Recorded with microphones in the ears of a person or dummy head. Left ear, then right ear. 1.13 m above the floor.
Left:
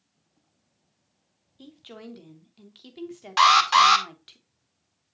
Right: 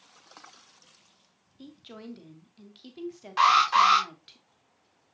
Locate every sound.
1.6 s a woman speaking: 15° left (ahead or behind), 0.9 m
3.4 s an alarm: 35° left (ahead or behind), 1.5 m